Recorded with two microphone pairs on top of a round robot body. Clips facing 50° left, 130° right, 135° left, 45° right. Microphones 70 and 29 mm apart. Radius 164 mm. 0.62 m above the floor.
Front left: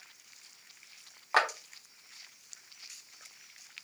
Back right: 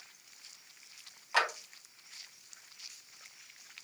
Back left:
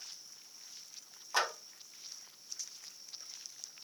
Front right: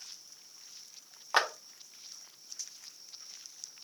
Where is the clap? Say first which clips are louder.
Front left 3 dB, front right 4 dB; 5° left, 0.8 m.